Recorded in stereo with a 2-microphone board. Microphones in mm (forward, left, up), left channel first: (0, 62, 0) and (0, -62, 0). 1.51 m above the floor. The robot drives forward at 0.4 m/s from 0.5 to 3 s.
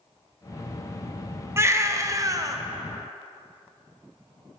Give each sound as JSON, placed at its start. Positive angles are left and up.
{"t": 1.6, "sound": "a baby crying", "side_deg": -20, "distance_m": 0.7}